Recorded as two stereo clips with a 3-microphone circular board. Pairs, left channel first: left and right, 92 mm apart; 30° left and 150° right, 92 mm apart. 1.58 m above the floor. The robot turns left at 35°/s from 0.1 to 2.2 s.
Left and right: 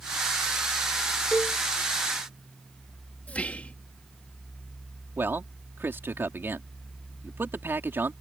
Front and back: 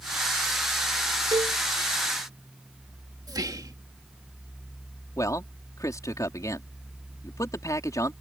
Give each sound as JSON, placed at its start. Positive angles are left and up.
{"t": 1.3, "sound": "a cowbell", "azimuth_deg": 170}
{"t": 3.3, "sound": "whispering", "azimuth_deg": 165}
{"t": 5.2, "sound": "a man speaking", "azimuth_deg": -25}